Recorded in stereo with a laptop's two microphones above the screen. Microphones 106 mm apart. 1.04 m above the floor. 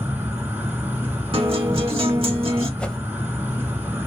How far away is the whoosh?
About 0.6 m.